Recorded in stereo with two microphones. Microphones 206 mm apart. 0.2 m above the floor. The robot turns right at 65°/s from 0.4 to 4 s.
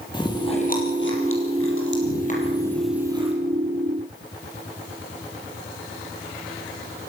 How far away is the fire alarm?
No fire alarm in this recording.